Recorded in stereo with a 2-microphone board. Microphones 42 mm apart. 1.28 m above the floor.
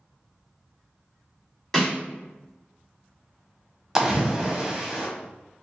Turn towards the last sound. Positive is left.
turn(degrees=-15)  # may be behind; listen again after turning